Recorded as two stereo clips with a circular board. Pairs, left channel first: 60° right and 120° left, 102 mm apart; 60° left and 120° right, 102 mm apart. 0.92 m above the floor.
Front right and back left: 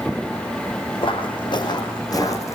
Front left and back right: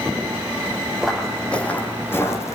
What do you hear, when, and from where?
1.0 s footsteps: 30° right, 3 m; by 2.5 s straight ahead, 3 m